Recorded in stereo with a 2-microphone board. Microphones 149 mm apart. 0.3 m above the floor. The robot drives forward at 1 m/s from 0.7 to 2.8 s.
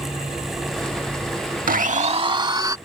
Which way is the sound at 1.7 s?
65° right (ahead or behind).